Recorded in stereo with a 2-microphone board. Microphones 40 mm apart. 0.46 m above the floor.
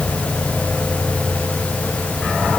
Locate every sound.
Only background noise.